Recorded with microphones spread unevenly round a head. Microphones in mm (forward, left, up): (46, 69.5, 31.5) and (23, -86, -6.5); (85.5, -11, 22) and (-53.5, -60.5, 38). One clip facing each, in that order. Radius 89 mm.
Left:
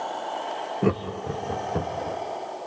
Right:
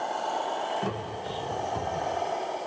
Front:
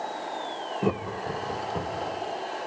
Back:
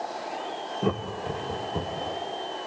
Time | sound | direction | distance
0.8 | laughter | 105° left | 1.3 m